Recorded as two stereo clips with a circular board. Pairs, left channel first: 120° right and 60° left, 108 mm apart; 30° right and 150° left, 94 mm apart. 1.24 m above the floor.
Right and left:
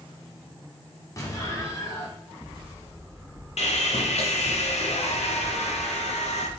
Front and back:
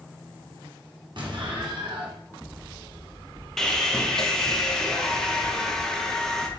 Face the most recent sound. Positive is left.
turn(degrees=-115)